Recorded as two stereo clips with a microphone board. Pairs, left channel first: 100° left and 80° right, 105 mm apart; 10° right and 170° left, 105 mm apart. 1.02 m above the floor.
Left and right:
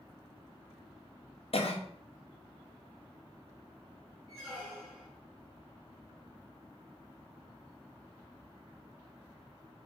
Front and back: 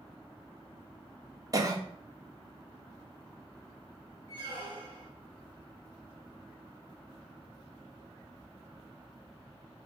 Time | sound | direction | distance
1.5 | a cough | 115° left | 0.5 m
4.3 | a squeak | 170° right | 2 m